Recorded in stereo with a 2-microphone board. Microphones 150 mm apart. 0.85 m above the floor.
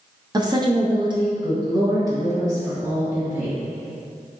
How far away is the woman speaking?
About 0.6 m.